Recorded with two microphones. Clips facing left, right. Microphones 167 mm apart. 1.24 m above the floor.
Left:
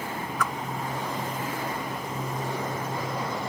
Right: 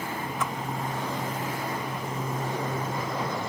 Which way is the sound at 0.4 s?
25° right (ahead or behind).